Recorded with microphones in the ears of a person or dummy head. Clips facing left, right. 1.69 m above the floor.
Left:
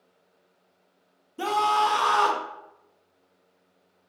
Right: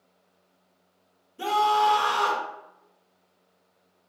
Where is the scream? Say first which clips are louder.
Right 1 dB; 65° left (ahead or behind), 0.8 m.